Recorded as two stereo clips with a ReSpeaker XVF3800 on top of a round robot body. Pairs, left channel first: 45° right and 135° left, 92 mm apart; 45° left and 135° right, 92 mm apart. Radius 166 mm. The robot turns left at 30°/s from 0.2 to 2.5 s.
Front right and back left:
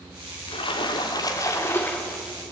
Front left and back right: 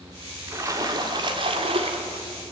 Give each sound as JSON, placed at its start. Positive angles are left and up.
{"t": 0.5, "sound": "a splash", "azimuth_deg": -75, "distance_m": 1.7}